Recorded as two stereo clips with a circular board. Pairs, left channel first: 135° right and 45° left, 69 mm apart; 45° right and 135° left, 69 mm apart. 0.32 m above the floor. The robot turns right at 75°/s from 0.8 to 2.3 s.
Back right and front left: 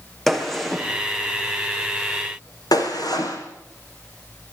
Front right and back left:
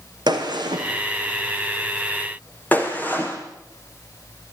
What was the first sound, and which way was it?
A gunshot, 135° left.